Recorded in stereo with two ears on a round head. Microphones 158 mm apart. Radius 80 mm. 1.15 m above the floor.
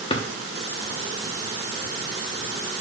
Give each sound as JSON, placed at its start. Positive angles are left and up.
{"t": 0.1, "sound": "a drawer", "side_deg": 30, "distance_m": 0.8}